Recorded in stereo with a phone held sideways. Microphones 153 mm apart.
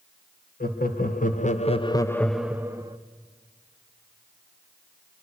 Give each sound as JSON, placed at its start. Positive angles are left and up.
{"t": 0.6, "sound": "laughter", "side_deg": 80, "distance_m": 1.6}